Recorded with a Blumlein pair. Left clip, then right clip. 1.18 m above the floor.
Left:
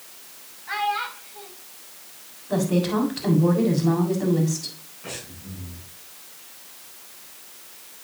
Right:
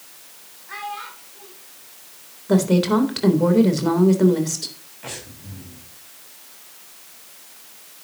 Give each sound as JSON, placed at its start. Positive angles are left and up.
{"t": 0.7, "sound": "a child speaking", "azimuth_deg": 35, "distance_m": 4.5}
{"t": 2.5, "sound": "a woman speaking", "azimuth_deg": -40, "distance_m": 3.5}
{"t": 5.0, "sound": "breathing", "azimuth_deg": -30, "distance_m": 5.5}